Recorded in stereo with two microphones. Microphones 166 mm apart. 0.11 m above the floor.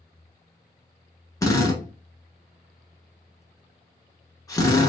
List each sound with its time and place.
1.4 s a drill: 20° left (ahead or behind), 0.8 m